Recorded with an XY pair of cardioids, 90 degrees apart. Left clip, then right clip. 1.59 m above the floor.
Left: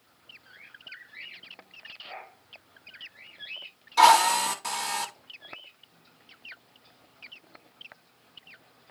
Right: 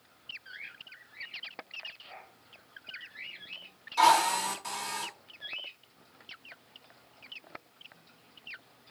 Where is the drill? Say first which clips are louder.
Left 5 dB; 55° left, 2.5 m.